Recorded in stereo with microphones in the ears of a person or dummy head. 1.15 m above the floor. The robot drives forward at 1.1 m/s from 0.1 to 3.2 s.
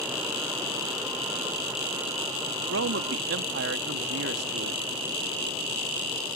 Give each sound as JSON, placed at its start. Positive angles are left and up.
{"t": 2.7, "sound": "a man speaking", "side_deg": -90}